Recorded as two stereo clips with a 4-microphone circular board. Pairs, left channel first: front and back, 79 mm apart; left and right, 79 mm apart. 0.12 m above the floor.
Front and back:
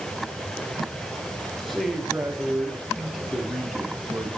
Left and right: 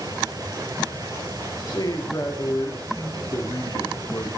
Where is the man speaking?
90° left, 2 m.